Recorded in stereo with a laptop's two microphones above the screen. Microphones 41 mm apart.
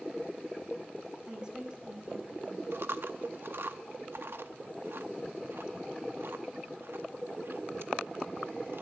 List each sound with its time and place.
1.3 s a woman speaking: 20° right (ahead or behind), 5 m
2.7 s chewing: 65° right (ahead or behind), 0.7 m